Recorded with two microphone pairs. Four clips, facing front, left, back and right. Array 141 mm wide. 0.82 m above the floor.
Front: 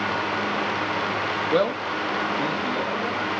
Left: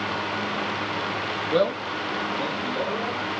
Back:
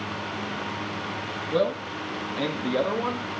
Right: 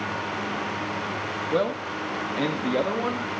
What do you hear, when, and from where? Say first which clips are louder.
1.5 s a man speaking: left 3 dB, front 1 dB; 10° left, 1.2 m; by 3.3 s 125° right, 2.5 m